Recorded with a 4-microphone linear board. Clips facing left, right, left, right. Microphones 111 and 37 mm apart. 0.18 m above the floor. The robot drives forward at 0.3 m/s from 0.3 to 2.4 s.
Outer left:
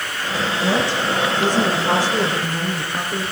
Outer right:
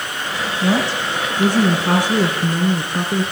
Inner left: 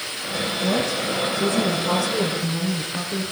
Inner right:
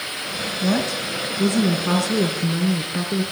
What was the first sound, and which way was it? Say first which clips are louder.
A woman speaking: outer right 2 dB, inner right 1 dB; 45° right (ahead or behind).